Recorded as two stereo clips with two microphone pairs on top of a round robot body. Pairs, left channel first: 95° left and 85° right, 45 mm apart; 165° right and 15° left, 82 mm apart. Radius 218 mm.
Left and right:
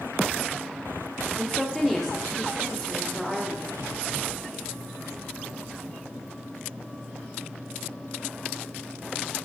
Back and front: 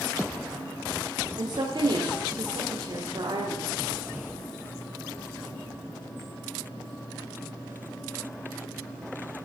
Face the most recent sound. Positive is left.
turn(degrees=0)